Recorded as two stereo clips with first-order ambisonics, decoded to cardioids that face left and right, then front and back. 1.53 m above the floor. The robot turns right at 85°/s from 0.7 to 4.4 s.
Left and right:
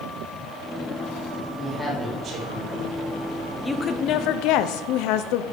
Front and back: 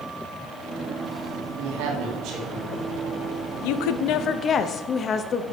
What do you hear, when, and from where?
1.6 s a woman speaking: 160° left, 2.5 m; by 3.5 s 35° right, 2.5 m
3.6 s a woman speaking: straight ahead, 0.6 m; by 5.4 s 65° left, 0.6 m